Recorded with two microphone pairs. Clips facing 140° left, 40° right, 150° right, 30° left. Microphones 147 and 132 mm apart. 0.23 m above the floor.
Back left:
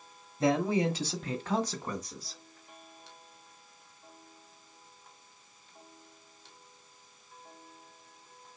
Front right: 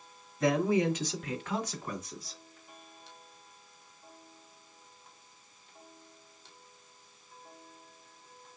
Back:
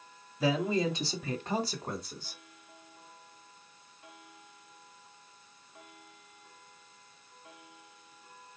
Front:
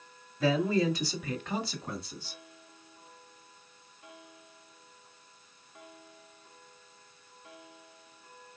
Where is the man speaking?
145° left, 1.1 m; by 2.4 s 175° right, 1.7 m.